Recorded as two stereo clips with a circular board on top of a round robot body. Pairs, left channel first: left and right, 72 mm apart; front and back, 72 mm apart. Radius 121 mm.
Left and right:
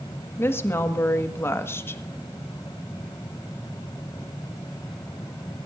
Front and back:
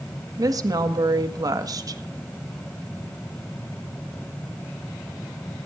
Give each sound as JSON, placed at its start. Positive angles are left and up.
{"t": 0.4, "sound": "a woman speaking", "azimuth_deg": 145, "distance_m": 1.6}